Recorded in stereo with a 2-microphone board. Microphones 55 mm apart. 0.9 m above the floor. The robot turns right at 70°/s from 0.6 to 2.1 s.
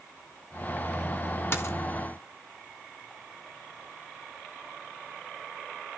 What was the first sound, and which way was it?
A dropped coin, 50° left (ahead or behind).